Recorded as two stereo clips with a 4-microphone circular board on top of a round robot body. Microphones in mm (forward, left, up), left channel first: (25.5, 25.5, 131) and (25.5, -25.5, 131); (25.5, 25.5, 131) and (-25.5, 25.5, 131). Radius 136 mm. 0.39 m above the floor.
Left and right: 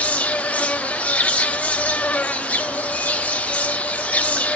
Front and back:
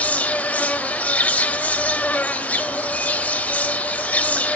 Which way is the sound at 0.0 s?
40° left.